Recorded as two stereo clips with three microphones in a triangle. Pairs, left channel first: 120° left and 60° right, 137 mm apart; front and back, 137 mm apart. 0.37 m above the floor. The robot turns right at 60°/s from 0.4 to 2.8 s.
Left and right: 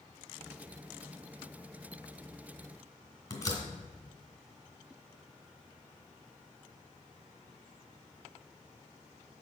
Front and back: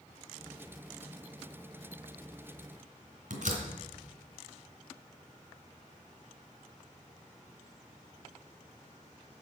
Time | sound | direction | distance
3.3 | a door slam | 175° right | 2.5 m